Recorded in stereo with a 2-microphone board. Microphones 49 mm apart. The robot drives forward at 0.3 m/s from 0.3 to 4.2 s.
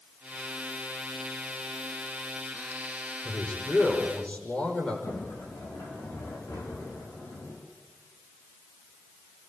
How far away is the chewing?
No chewing in this recording.